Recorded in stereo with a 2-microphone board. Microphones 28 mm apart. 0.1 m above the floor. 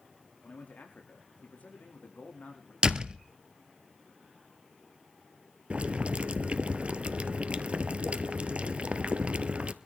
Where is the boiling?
50° right (ahead or behind), 1.0 m.